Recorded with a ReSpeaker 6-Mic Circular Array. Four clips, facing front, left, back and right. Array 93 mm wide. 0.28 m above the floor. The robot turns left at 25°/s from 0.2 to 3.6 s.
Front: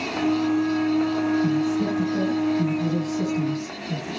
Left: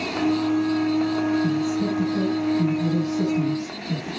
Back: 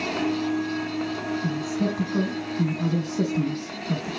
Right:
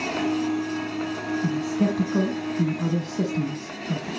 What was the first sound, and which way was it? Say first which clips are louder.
A man speaking: left 1 dB, front 4 dB; 90° right.